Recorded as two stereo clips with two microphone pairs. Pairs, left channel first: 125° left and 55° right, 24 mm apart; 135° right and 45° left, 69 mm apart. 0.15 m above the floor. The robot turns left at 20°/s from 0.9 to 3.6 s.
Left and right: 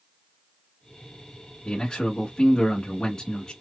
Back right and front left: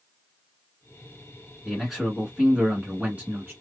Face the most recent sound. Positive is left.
turn(degrees=85)